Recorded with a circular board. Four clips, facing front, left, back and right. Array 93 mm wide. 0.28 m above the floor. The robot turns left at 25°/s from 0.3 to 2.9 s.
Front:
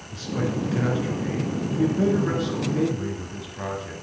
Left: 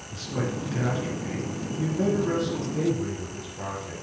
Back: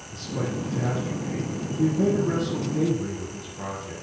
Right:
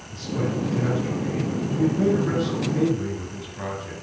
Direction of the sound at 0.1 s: 35° left.